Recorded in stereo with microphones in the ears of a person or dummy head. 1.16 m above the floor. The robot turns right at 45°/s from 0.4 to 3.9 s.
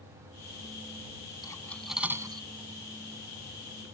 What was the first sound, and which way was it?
Cutlery clinking, 20° left (ahead or behind).